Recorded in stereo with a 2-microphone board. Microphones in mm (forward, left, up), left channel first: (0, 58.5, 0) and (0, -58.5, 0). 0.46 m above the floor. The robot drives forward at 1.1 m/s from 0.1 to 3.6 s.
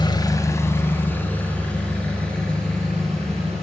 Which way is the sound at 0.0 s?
35° left (ahead or behind).